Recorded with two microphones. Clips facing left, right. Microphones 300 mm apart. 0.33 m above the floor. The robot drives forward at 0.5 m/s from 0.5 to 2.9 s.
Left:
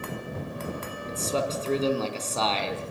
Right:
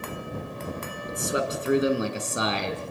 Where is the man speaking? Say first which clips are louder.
Right 1 dB; 15° right (ahead or behind), 4 m.